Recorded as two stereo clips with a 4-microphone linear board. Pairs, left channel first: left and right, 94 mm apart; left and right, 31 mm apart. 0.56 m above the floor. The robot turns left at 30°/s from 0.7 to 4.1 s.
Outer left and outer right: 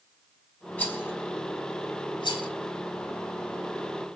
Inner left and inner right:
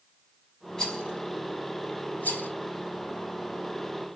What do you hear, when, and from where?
0.8 s a rattle: 15° left (ahead or behind), 5 m; by 2.5 s 65° left (ahead or behind), 5 m